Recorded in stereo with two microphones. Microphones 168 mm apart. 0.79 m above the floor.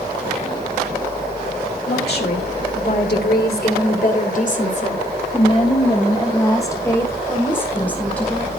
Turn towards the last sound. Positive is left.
turn(degrees=5)  # may be behind; listen again after turning